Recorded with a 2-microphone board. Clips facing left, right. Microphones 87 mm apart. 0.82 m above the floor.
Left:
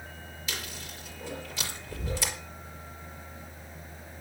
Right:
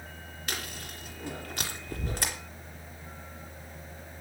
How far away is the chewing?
About 4 m.